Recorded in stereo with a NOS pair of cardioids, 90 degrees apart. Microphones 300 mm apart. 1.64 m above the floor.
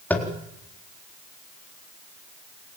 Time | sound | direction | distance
0.1 | tapping | 5° left | 4 m